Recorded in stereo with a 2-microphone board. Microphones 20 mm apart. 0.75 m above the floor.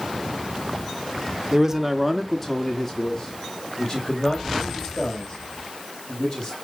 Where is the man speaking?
30° right (ahead or behind), 1.0 m; by 6.5 s 40° left (ahead or behind), 5 m.